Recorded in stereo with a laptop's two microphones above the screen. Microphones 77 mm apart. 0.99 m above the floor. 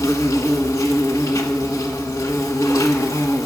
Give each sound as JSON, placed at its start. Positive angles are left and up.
{"t": 0.0, "sound": "an insect", "side_deg": 45, "distance_m": 1.2}